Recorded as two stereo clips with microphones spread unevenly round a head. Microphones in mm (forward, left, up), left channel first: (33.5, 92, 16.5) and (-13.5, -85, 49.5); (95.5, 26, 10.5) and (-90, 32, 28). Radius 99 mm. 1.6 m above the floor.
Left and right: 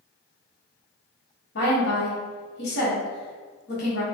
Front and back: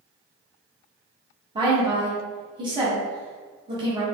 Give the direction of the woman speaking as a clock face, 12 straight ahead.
8 o'clock.